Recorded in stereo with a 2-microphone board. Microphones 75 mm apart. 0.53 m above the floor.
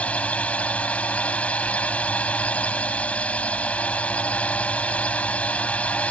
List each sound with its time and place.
0.0 s a drone: 15° left (ahead or behind)